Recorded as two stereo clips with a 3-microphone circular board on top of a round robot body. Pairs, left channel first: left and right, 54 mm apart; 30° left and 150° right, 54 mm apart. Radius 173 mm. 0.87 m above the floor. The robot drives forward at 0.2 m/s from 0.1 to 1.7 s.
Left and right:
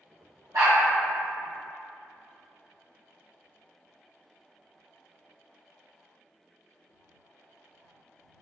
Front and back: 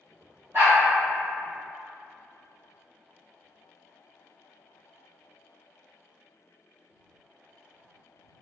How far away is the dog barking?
About 1.8 m.